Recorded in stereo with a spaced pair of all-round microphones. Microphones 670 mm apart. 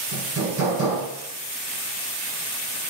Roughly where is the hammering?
Right.